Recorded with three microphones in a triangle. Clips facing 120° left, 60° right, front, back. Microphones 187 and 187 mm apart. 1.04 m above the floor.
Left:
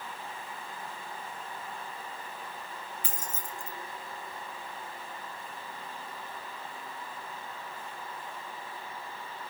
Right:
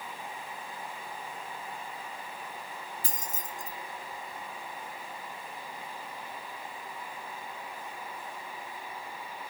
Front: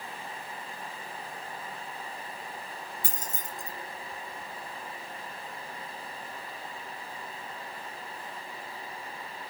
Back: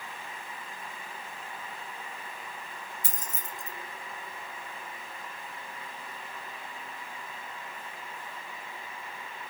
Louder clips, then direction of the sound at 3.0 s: Right 1 dB, front 3 dB; 10° right.